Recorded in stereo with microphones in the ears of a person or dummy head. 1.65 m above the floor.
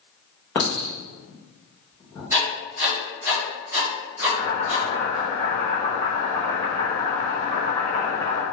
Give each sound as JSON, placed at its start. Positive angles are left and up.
{"t": 0.6, "sound": "a clink", "side_deg": 20, "distance_m": 0.7}
{"t": 2.3, "sound": "writing", "side_deg": -15, "distance_m": 1.5}
{"t": 4.2, "sound": "boiling", "side_deg": 30, "distance_m": 1.5}